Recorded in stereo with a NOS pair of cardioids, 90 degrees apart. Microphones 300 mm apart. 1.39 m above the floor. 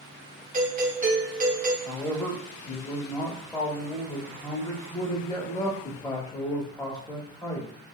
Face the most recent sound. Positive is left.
turn(degrees=10)